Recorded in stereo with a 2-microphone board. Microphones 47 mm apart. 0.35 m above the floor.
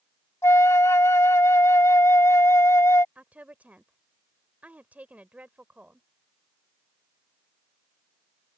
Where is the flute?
80° left.